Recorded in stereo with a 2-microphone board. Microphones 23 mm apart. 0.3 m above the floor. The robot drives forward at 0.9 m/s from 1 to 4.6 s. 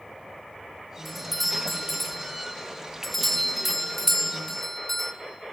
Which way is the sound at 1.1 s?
5° left (ahead or behind).